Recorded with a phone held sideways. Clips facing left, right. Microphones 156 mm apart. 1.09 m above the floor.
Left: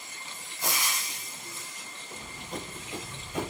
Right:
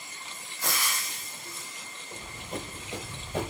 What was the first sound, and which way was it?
Frying, 20° left (ahead or behind).